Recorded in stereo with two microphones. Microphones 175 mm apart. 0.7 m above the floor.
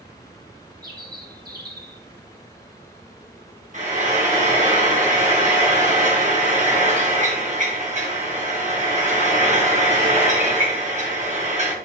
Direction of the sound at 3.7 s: 45° right (ahead or behind).